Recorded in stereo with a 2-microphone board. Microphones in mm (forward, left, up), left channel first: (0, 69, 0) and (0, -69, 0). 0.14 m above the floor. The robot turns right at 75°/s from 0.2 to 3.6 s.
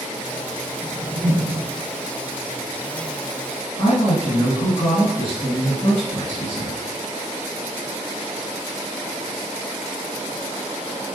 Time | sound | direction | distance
0.8 | a whoosh | 150° right | 1.3 m
3.8 | a woman speaking | 35° left (ahead or behind) | 1.8 m